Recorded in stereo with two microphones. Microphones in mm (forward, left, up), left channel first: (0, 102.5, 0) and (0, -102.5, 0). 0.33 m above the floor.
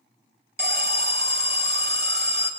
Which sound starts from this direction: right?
An alarm, at 0.6 s.